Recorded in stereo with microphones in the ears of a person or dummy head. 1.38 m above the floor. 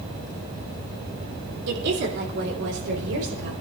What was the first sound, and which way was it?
A woman speaking, 65° right (ahead or behind).